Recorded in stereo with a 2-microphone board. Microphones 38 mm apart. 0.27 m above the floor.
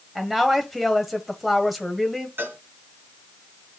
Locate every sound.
0.1 s a woman speaking: centre (ahead or behind), 1.5 m
2.4 s a cowbell: 60° right (ahead or behind), 2.5 m